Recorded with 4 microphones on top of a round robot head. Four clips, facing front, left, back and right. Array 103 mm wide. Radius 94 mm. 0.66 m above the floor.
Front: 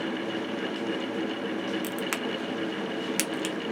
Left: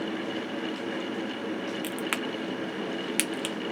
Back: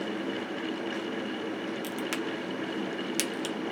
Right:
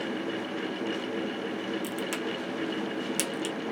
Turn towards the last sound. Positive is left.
turn(degrees=55)